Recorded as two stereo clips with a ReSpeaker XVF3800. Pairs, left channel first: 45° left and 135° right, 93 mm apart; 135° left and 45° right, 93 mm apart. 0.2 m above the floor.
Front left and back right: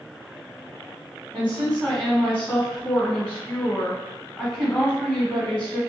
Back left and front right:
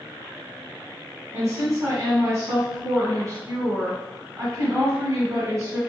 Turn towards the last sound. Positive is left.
turn(degrees=-25)